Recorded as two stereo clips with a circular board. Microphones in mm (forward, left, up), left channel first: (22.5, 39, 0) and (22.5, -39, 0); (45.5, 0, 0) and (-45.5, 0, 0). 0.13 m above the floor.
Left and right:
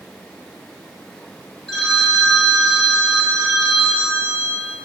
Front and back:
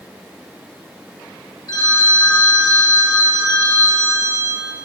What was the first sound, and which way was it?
A phone ringing, 10° left.